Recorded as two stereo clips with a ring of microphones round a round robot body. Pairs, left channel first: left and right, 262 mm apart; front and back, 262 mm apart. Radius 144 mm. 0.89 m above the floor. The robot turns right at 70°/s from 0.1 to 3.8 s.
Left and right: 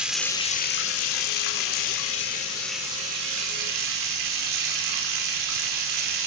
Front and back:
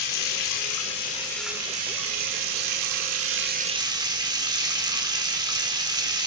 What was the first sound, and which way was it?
Running water, 5° right.